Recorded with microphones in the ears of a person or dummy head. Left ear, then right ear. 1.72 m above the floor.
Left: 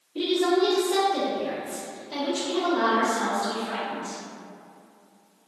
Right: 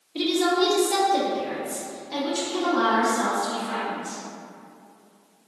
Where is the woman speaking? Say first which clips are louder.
Right 1 dB; 50° right (ahead or behind), 1.0 m; by 4.2 s 5° left (ahead or behind), 2.5 m.